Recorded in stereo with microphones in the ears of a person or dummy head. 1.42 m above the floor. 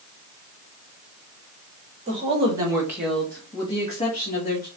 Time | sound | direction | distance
2.1 | a woman speaking | 35° right (ahead or behind) | 1.8 m